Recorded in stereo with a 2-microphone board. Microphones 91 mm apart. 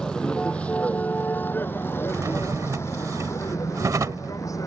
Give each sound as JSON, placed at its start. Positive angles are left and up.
{"t": 0.0, "sound": "a vehicle", "side_deg": 10}
{"t": 2.1, "sound": "a drawer", "side_deg": -35}